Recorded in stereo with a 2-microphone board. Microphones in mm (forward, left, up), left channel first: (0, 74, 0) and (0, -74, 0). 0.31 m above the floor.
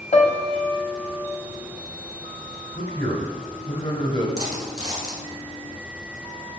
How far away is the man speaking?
About 1.2 m.